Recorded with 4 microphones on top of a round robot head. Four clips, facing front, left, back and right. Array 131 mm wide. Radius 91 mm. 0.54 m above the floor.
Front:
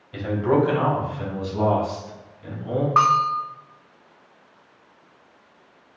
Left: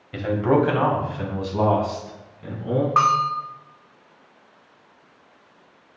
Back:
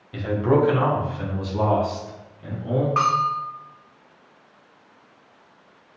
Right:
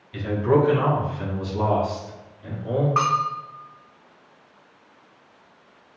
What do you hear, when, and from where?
0.1 s a man speaking: 100° left, 1.2 m; by 2.9 s 115° left, 3 m
3.0 s a bell: 30° left, 1.0 m